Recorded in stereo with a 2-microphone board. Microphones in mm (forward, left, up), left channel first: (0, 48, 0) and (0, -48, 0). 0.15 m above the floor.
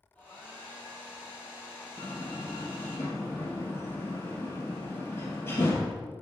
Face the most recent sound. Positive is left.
turn(degrees=25)  # may be behind; listen again after turning